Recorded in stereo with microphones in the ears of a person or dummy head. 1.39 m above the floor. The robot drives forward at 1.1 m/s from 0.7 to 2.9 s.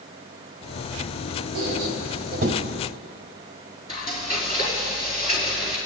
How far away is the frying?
About 4.5 m.